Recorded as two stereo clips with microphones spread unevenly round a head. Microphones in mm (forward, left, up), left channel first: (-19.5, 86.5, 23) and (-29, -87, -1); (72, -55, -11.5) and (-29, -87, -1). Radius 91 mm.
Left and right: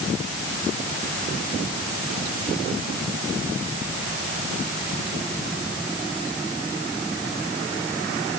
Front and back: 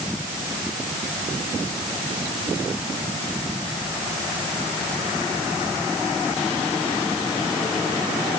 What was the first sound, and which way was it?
Only background noise.